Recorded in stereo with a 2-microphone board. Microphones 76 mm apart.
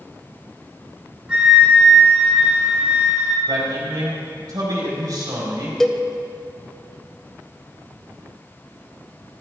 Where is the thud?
I don't hear a thud.